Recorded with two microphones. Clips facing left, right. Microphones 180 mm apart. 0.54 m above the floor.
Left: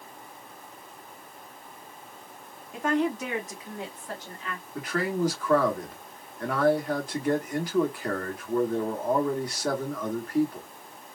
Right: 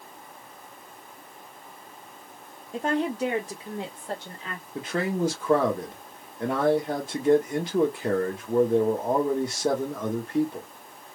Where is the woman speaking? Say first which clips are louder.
Even; 35° right (ahead or behind), 1.2 m; by 4.7 s 25° right (ahead or behind), 2.5 m.